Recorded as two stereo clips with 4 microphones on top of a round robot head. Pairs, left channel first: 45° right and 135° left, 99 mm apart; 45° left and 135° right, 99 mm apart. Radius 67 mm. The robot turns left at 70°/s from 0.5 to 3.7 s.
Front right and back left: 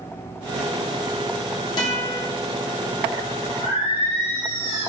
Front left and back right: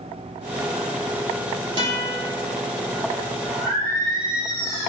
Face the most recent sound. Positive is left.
turn(degrees=-15)